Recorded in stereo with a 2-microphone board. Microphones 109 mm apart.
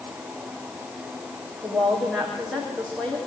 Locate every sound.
1.6 s a woman speaking: 5° right (ahead or behind), 9.5 m; by 3.2 s 5° left (ahead or behind), 9 m